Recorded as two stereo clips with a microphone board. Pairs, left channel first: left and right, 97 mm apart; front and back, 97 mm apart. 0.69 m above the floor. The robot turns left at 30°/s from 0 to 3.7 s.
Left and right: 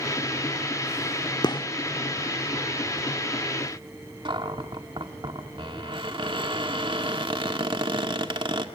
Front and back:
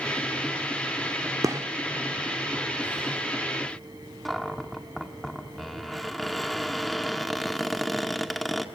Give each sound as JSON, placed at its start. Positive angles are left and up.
{"t": 1.4, "sound": "a gunshot", "azimuth_deg": 130, "distance_m": 1.2}
{"t": 4.2, "sound": "a cupboard door", "azimuth_deg": -90, "distance_m": 1.8}